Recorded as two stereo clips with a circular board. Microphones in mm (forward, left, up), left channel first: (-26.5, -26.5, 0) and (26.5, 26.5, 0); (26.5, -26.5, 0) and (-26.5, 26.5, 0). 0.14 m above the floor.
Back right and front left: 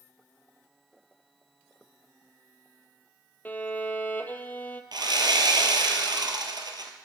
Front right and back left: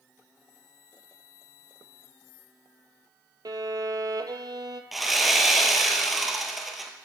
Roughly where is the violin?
Behind.